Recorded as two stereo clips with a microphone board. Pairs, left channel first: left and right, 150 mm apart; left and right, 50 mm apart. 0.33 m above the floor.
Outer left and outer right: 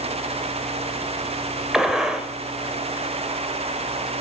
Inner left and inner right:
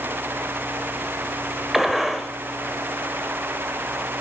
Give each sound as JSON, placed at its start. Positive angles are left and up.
{"t": 1.7, "sound": "a gunshot", "side_deg": -5, "distance_m": 1.4}